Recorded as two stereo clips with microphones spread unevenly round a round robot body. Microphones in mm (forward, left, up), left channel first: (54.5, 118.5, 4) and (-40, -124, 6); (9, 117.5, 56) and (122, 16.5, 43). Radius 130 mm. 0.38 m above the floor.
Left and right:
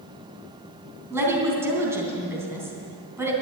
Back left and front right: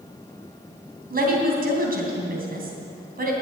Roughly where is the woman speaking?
Ahead right.